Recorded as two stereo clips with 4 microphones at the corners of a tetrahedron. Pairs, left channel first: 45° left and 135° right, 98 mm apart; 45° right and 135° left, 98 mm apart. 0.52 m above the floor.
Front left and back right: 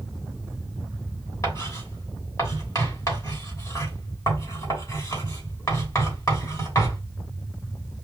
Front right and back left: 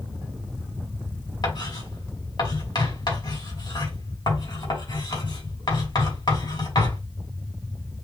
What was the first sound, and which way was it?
Writing, 15° right.